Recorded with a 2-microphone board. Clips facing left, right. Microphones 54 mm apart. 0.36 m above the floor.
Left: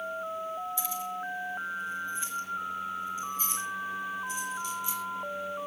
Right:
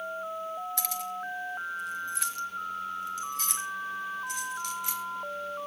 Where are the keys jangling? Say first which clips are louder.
Even; 65° right (ahead or behind), 1.9 m; by 5.0 s 60° right (ahead or behind), 3.5 m.